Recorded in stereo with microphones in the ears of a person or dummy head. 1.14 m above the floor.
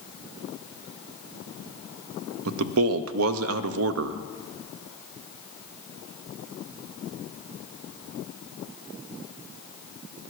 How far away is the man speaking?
About 0.7 m.